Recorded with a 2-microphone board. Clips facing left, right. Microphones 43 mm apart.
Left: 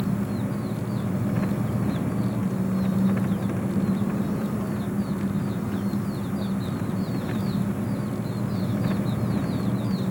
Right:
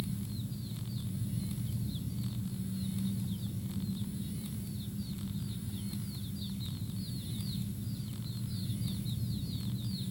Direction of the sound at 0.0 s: 85° left.